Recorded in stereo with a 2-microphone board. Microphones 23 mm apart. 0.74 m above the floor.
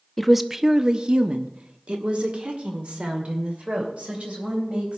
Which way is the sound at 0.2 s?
5° left (ahead or behind).